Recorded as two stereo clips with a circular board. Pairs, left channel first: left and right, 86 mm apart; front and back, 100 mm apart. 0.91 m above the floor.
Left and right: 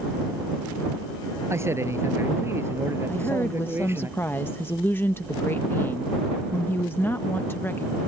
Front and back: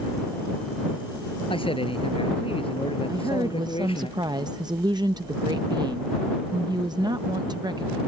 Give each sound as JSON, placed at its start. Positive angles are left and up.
{"t": 1.5, "sound": "a man speaking", "azimuth_deg": -30}
{"t": 3.1, "sound": "a woman speaking", "azimuth_deg": 150}